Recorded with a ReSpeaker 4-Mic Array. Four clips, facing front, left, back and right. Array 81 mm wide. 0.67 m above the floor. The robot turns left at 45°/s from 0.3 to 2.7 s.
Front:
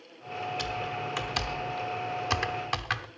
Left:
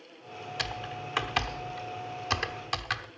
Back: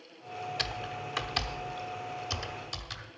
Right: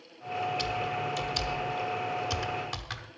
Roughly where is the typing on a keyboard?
Behind left.